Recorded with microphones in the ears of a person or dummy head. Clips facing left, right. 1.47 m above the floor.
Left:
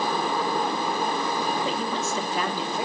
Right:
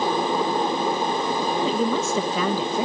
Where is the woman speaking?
75° right (ahead or behind), 1.4 m.